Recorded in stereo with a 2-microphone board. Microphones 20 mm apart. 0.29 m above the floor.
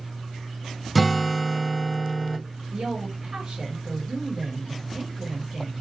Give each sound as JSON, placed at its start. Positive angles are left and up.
{"t": 0.9, "sound": "a guitar", "side_deg": 0, "distance_m": 0.6}
{"t": 2.7, "sound": "a woman speaking", "side_deg": -45, "distance_m": 5.0}